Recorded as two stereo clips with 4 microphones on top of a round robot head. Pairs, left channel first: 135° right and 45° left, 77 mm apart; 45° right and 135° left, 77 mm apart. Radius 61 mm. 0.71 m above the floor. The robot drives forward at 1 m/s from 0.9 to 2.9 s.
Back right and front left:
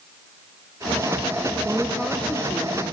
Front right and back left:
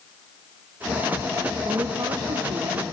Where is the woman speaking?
95° left, 0.5 m; by 2.8 s 165° left, 1.3 m.